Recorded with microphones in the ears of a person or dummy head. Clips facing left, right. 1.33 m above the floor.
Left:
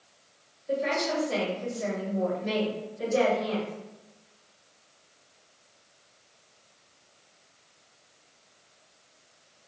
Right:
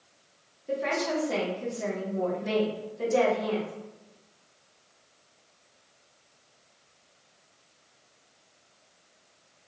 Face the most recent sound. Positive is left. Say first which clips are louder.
# left 1 dB
turn(degrees=-85)